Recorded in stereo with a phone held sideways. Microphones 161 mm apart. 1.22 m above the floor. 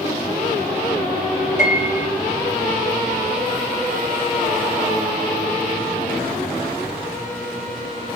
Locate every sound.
1.6 s a piano: 50° left (ahead or behind), 1.2 m